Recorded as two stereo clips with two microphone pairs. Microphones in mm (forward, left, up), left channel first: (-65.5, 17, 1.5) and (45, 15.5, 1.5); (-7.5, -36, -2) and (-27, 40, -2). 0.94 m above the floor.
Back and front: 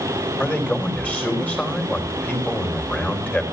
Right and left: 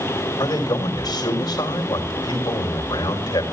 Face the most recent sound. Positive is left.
turn(degrees=-105)